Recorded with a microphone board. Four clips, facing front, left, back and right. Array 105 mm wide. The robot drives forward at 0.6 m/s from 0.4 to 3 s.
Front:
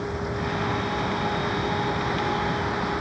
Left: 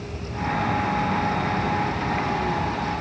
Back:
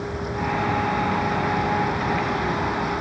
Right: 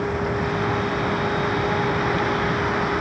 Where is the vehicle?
90° right.